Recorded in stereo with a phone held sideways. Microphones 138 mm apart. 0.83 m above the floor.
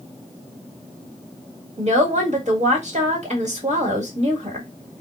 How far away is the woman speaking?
About 1.6 m.